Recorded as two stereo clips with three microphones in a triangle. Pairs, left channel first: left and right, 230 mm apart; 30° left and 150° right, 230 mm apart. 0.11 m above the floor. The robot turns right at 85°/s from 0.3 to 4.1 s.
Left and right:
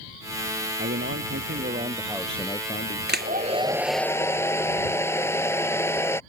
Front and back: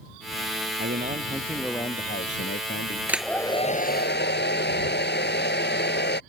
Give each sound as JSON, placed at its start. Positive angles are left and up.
{"t": 0.8, "sound": "a man speaking", "azimuth_deg": -125}
{"t": 3.1, "sound": "a hair dryer", "azimuth_deg": -70}